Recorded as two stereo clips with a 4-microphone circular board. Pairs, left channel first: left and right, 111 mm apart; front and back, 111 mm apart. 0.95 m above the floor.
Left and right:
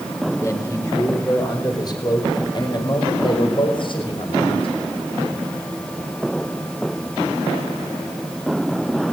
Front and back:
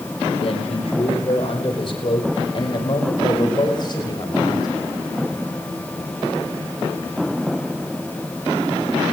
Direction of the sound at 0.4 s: 25° left.